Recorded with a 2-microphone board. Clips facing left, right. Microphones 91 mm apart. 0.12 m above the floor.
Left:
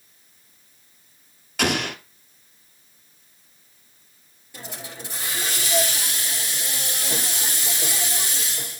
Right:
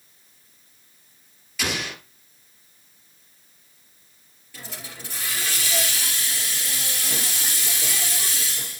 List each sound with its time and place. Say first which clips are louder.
1.6 s an explosion: left 6 dB; 60° left (ahead or behind), 0.9 m
4.5 s a hiss: left 3 dB; 20° left (ahead or behind), 3 m